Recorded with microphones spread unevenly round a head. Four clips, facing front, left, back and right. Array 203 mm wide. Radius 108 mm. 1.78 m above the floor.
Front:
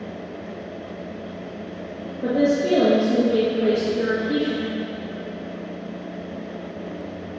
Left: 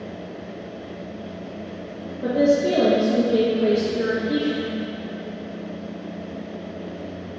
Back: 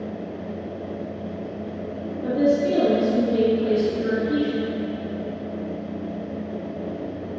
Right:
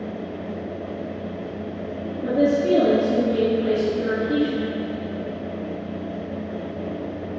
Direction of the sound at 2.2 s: 40° left.